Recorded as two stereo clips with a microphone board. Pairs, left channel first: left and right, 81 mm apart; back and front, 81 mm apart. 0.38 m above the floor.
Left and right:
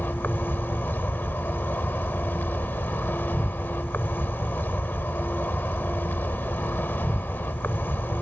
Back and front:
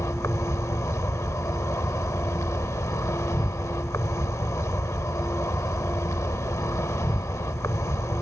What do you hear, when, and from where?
0.0 s an insect: 145° left